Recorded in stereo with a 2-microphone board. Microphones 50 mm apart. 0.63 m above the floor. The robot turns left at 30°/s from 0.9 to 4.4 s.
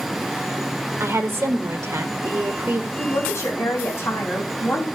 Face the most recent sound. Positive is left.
turn(degrees=50)